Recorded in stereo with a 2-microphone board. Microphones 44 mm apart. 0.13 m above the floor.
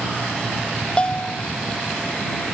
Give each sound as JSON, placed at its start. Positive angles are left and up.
{"t": 1.0, "sound": "a bell", "side_deg": 25}